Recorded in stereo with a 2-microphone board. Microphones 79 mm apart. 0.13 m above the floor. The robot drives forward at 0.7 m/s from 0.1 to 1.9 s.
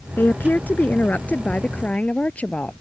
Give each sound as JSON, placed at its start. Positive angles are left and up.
{"t": 0.2, "sound": "a woman speaking", "side_deg": 25}